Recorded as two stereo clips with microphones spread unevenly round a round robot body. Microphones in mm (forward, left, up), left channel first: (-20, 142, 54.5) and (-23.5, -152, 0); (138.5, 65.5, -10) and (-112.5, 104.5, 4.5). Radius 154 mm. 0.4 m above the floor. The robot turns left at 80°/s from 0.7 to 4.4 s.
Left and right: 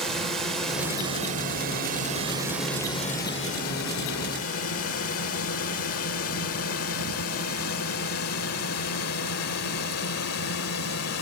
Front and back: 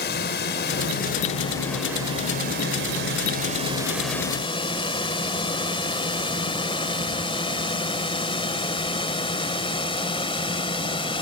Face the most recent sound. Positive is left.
turn(degrees=55)